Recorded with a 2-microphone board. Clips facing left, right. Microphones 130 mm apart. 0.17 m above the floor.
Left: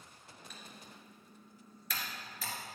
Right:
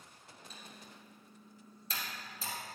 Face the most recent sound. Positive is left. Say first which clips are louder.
# even
turn(degrees=-30)  # may be behind; listen again after turning